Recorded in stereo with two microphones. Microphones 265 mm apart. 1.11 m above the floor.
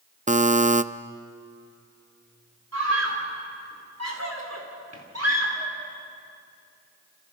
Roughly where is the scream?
Right.